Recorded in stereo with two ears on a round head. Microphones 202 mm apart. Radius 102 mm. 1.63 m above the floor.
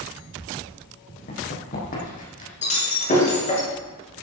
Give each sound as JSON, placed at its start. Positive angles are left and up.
{"t": 1.3, "sound": "running footsteps", "side_deg": 45, "distance_m": 5.0}
{"t": 2.6, "sound": "breaking glass", "side_deg": 35, "distance_m": 6.0}